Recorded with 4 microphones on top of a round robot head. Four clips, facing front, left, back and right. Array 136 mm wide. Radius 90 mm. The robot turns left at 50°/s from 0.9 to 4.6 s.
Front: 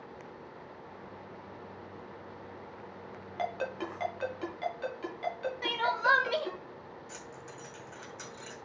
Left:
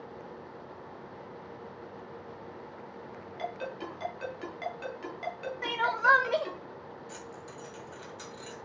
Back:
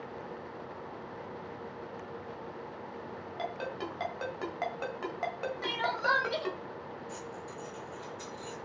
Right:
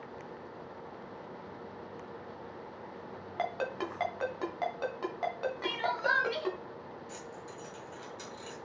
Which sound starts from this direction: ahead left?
Keys jangling, at 7.1 s.